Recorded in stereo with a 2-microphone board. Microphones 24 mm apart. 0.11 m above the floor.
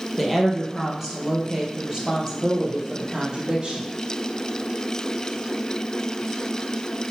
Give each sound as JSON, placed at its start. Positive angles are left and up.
{"t": 0.2, "sound": "a woman speaking", "side_deg": 0, "distance_m": 2.5}